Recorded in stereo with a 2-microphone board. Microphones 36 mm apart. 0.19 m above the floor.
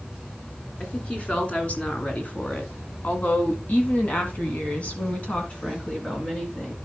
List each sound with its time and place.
0.8 s a woman speaking: 35° left (ahead or behind), 2.5 m; by 6.8 s 25° left (ahead or behind), 2.5 m